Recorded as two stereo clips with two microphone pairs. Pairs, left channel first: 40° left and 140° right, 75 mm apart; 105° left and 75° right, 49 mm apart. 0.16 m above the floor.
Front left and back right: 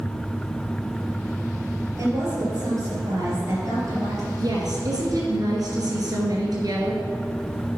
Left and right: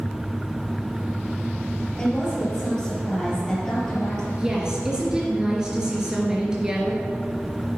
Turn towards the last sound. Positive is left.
turn(degrees=-150)